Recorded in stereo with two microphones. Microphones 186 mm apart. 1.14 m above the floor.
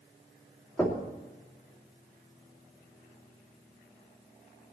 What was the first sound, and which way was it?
Knocking, 10° left (ahead or behind).